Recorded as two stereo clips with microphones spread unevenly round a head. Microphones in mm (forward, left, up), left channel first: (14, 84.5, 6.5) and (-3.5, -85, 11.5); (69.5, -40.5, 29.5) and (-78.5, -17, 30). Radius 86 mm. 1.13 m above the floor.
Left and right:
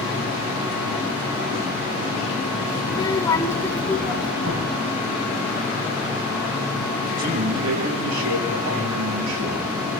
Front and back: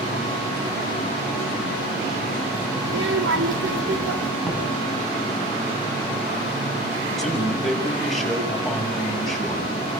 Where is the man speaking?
95° right, 7 m.